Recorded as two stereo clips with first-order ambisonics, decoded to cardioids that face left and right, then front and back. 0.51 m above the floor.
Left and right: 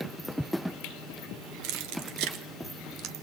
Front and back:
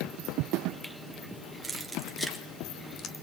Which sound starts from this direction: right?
Keys jangling, at 1.6 s.